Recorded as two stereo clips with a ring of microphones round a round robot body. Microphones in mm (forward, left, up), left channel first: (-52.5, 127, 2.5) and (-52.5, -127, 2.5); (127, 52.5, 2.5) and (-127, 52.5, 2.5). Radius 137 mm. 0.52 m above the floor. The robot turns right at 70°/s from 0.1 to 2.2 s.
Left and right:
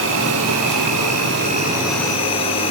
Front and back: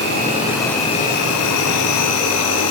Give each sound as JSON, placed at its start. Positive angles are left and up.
{"t": 0.0, "sound": "an insect", "azimuth_deg": -130, "distance_m": 6.0}